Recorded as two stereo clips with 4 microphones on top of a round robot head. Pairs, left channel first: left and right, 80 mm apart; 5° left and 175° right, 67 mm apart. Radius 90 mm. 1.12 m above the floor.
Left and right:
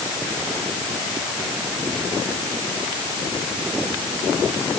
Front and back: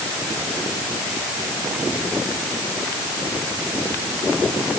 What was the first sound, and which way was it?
Only background noise.